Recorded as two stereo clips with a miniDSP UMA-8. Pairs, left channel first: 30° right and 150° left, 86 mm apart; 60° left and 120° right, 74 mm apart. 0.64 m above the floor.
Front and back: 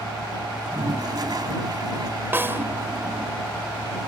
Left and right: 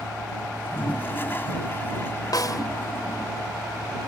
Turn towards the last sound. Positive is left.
turn(degrees=85)